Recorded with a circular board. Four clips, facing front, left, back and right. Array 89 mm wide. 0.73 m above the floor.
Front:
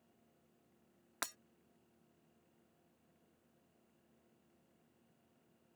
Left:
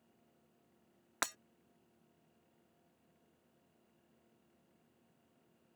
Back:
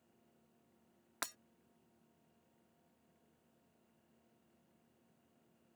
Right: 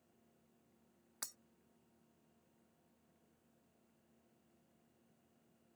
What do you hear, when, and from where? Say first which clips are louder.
1.2 s breaking glass: left 17 dB, even; 90° left